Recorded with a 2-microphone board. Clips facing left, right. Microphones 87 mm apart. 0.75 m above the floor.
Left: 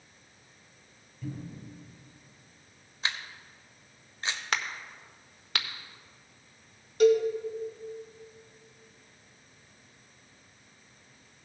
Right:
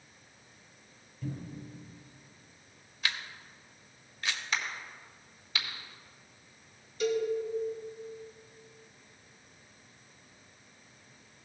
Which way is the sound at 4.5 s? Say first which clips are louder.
Left 2 dB; 70° left (ahead or behind).